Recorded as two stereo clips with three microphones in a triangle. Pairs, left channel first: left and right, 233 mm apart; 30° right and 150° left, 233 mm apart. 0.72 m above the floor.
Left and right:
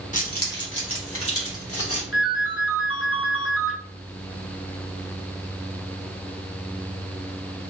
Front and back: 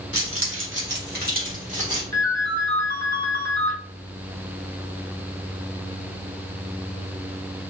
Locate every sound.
0.1 s keys jangling: 145° left, 1.0 m; by 2.0 s 90° left, 1.8 m
2.1 s a ringtone: 110° left, 1.0 m